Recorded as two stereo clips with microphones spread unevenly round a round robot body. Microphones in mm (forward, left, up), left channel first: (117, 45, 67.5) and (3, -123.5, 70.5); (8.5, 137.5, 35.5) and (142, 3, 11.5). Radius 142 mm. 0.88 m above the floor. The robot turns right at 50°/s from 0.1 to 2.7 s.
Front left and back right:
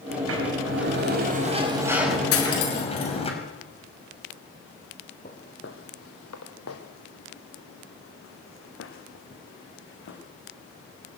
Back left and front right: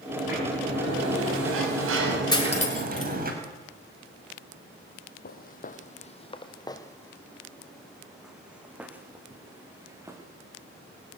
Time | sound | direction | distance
0.1 | a sliding door | 135° right | 5.5 m
2.3 | cutlery clinking | 65° left | 6.5 m
5.2 | footsteps | 120° left | 1.6 m